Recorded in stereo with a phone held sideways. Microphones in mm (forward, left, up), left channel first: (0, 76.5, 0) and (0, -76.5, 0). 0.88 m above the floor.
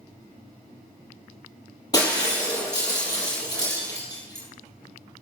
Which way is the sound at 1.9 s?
25° left (ahead or behind).